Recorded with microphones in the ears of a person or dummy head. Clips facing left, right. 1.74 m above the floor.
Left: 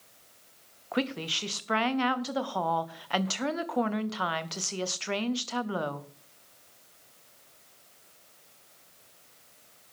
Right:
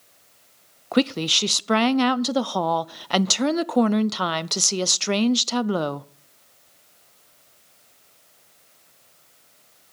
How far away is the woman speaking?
About 0.5 m.